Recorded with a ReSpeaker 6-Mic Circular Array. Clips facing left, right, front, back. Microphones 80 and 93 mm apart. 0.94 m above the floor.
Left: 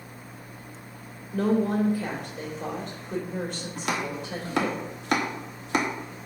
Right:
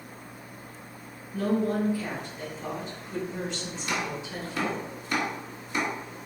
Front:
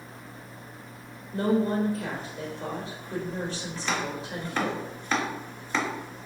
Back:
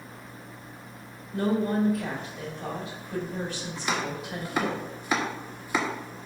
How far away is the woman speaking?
About 3 m.